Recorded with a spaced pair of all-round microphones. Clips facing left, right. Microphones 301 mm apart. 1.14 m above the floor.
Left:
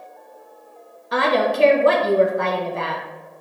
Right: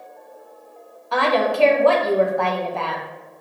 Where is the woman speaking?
20° left (ahead or behind), 0.8 m.